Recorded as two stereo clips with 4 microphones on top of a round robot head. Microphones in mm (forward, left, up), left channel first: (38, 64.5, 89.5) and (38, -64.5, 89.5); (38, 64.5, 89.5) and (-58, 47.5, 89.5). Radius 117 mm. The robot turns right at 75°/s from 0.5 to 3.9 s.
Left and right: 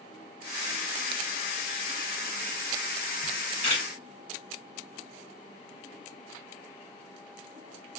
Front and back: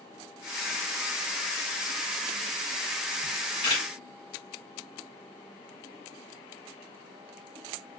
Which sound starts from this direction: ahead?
A camera shutter, at 3.2 s.